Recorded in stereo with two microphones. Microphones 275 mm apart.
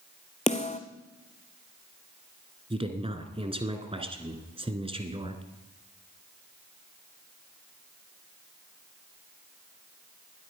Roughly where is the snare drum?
Left.